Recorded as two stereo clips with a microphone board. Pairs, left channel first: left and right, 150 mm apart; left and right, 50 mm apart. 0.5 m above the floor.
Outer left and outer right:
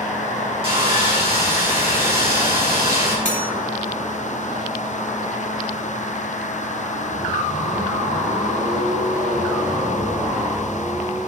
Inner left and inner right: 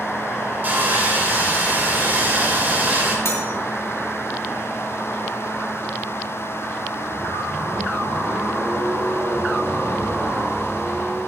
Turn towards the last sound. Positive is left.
turn(degrees=60)  # may be behind; listen again after turning